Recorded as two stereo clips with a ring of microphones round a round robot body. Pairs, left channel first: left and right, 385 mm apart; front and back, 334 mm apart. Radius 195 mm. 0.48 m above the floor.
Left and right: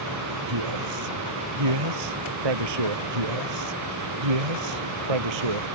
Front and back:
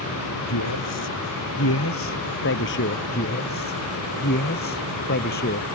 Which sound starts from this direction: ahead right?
A man speaking, at 0.5 s.